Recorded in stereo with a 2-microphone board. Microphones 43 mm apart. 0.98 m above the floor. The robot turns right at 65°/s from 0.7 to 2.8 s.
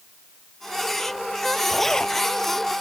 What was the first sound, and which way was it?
A zipper, 5° right.